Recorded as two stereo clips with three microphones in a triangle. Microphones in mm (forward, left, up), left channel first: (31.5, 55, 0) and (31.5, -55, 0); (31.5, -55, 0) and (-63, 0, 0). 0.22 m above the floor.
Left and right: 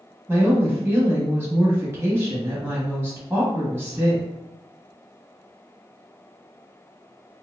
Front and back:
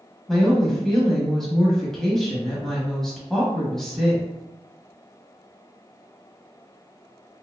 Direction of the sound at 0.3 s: 110° right.